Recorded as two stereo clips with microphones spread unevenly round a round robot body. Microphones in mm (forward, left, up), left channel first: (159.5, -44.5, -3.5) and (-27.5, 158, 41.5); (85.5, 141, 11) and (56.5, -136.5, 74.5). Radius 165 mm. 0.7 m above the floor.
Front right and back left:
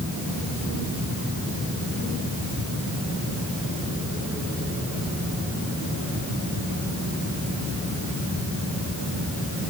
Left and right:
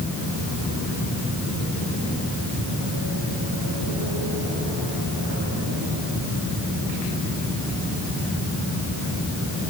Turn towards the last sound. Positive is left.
No sound to turn to.